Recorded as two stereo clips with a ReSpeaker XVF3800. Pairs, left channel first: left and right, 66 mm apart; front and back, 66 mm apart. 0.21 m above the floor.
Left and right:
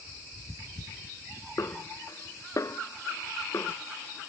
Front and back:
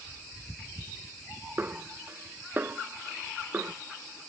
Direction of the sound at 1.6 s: 125° left.